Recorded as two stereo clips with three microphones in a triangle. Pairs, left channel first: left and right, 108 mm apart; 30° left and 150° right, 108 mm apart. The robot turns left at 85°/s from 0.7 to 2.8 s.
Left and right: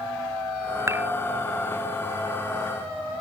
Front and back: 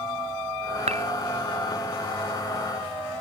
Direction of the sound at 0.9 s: 155° right.